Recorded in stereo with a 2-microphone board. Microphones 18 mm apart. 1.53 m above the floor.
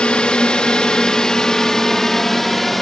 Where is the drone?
55° left (ahead or behind); by 2.8 s 5° left (ahead or behind).